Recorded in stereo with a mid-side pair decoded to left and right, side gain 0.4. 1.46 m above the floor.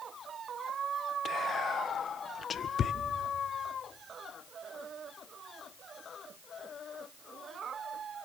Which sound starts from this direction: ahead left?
Whispering, at 1.2 s.